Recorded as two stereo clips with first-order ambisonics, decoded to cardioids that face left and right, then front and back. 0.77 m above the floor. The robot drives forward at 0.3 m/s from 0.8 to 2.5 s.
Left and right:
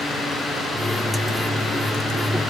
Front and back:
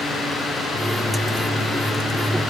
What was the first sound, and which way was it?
Only background noise.